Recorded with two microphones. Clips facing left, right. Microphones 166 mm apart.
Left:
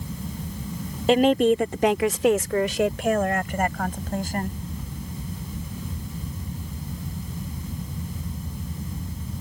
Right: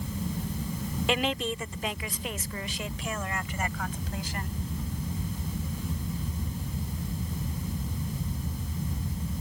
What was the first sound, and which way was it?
A woman speaking, 35° left (ahead or behind).